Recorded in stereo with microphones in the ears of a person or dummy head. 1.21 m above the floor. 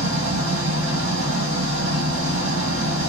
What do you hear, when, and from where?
0.0 s an engine running: 80° right, 1.4 m